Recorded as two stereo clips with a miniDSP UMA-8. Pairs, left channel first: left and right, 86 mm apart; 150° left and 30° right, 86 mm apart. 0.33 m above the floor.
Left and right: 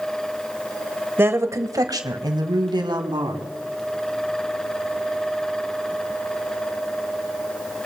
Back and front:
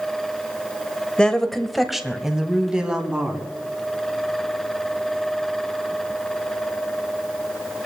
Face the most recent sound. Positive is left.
turn(degrees=-105)